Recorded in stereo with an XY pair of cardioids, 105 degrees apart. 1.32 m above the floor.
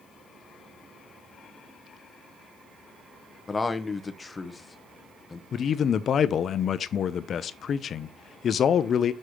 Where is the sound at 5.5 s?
55° left, 0.6 m.